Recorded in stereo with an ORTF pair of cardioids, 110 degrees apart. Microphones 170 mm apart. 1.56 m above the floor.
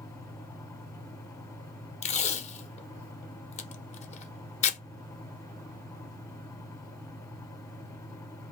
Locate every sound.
0.0 s a fan: 15° left, 0.9 m
2.0 s tape being pulled: 40° left, 0.7 m